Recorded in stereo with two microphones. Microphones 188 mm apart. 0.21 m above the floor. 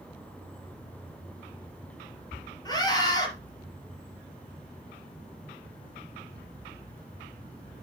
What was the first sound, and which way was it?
A scream, 20° left (ahead or behind).